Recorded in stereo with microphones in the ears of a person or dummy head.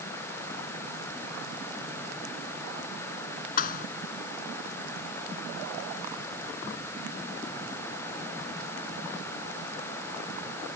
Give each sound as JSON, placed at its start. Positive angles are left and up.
{"t": 3.6, "sound": "a thud", "side_deg": 45}